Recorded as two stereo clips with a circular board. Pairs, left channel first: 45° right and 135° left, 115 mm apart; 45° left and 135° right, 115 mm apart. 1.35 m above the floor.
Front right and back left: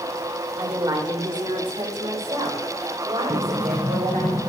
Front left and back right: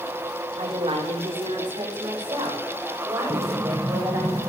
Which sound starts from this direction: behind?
A woman speaking, at 0.6 s.